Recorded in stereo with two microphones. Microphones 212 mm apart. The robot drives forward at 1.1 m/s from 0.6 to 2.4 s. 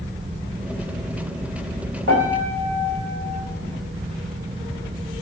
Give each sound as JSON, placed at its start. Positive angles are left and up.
{"t": 2.1, "sound": "a piano", "side_deg": -70, "distance_m": 6.0}